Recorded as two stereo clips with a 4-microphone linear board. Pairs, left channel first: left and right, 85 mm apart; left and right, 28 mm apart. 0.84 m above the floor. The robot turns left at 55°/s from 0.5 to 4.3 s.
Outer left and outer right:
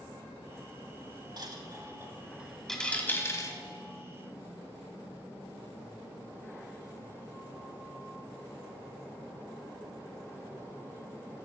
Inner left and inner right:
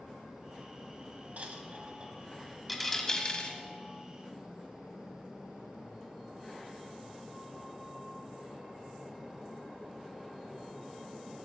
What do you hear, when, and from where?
1.4 s a dropped coin: 60° right (ahead or behind), 1.2 m; by 3.6 s 45° left (ahead or behind), 1.2 m